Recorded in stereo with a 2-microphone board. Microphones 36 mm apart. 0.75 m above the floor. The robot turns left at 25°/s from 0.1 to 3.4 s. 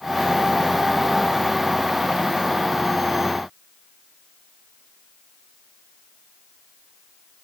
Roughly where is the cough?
No cough in this recording.